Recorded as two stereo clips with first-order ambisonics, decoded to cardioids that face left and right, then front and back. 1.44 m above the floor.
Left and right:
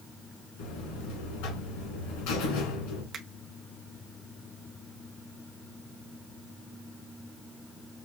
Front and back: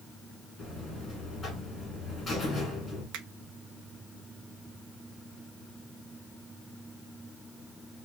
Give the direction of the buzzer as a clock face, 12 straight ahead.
9 o'clock.